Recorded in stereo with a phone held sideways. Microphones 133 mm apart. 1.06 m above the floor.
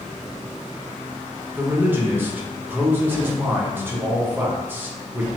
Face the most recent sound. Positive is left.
turn(degrees=-15)  # may be behind; listen again after turning